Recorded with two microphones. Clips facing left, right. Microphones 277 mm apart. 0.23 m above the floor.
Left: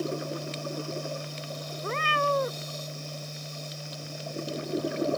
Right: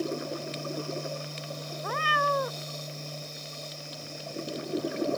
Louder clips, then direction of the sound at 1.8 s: Left 3 dB; 25° left (ahead or behind).